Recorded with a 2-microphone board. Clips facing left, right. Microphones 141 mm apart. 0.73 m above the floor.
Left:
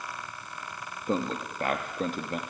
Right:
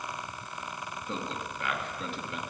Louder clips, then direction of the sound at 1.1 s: Left 8 dB; 45° left (ahead or behind).